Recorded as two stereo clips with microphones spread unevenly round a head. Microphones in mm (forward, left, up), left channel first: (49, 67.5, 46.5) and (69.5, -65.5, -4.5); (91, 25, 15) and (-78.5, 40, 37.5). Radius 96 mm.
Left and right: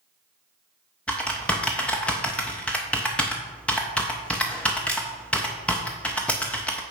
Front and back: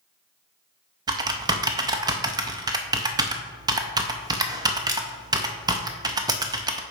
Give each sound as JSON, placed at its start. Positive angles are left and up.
{"t": 1.1, "sound": "typing on a keyboard", "azimuth_deg": 140, "distance_m": 0.5}